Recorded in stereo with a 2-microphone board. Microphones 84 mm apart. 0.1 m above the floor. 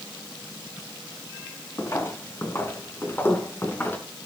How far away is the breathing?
I don't hear breathing.